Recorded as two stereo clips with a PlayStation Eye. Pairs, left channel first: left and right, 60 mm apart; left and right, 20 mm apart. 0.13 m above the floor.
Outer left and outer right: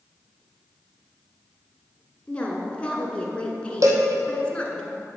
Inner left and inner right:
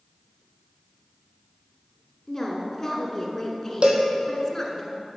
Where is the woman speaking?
20° left (ahead or behind), 1.2 m.